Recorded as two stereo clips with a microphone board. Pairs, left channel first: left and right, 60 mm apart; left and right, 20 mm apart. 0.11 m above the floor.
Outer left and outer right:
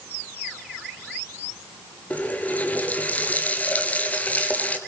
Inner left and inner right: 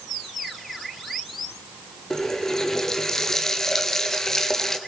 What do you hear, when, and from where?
2.1 s a running tap: 25° left (ahead or behind), 1.4 m